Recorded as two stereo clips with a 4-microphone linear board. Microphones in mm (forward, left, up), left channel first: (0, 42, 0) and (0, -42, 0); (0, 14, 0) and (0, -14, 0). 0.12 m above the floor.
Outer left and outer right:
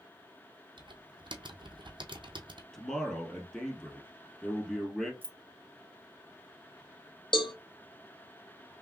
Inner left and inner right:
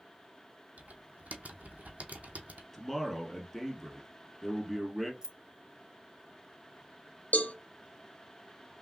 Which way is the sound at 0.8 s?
75° right (ahead or behind).